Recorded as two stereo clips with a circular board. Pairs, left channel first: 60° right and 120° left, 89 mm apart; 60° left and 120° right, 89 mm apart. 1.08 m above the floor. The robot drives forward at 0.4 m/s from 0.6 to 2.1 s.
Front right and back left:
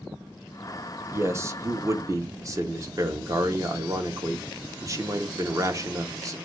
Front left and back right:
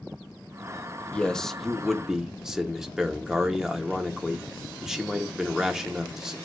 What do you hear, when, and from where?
1.1 s a man speaking: 120° left, 0.5 m; by 6.4 s 160° left, 0.7 m